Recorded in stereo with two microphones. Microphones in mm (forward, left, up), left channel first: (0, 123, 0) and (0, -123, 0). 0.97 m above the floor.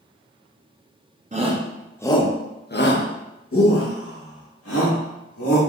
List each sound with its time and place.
1.3 s a shout: 30° right (ahead or behind), 0.6 m; by 5.6 s 75° left (ahead or behind), 2 m